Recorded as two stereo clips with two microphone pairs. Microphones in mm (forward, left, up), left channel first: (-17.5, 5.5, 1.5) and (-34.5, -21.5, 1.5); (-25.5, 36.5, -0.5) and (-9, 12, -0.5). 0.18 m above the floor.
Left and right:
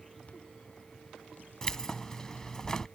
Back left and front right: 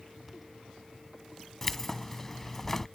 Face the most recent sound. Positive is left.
turn(degrees=80)